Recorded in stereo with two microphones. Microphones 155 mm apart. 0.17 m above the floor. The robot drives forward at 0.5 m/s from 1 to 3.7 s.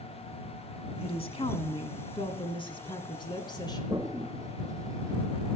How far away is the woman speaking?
About 1.5 m.